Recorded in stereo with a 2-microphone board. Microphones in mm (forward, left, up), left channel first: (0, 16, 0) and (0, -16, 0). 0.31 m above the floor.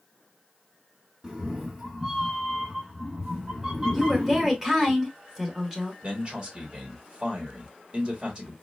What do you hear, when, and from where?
1.2 s a cat meowing: 20° right (ahead or behind), 1.0 m
3.9 s a woman speaking: 15° right (ahead or behind), 1.5 m
6.0 s a man speaking: 25° right (ahead or behind), 1.5 m